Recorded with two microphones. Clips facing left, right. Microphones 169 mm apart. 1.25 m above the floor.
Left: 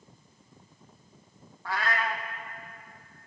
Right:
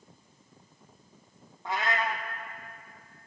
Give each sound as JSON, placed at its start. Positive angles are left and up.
{"t": 1.6, "sound": "a cat meowing", "side_deg": -20, "distance_m": 0.6}